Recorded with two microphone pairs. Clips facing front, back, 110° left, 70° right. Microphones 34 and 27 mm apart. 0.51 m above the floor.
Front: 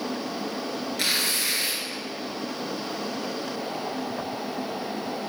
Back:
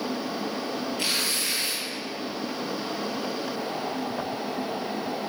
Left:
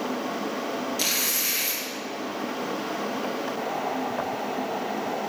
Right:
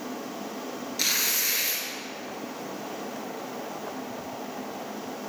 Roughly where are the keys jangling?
I don't hear keys jangling.